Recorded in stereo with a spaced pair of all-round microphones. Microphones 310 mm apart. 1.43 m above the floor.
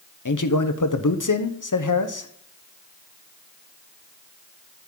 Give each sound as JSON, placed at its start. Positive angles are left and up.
{"t": 0.2, "sound": "a man speaking", "side_deg": 75, "distance_m": 0.8}